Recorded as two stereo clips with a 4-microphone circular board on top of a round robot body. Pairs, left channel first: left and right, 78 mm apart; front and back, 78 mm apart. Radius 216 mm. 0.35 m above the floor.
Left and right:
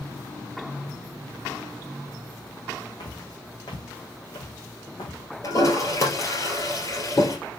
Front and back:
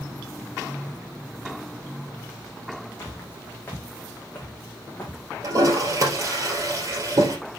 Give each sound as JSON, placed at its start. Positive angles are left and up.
{"t": 3.0, "sound": "footsteps", "azimuth_deg": 60, "distance_m": 1.6}
{"t": 5.4, "sound": "a toilet flushing", "azimuth_deg": 135, "distance_m": 2.5}